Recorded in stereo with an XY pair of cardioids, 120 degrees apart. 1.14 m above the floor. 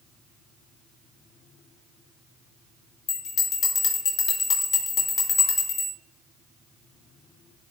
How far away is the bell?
About 1.7 m.